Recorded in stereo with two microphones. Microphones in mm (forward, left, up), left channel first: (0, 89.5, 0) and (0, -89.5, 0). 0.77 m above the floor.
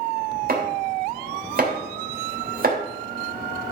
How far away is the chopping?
About 2.5 m.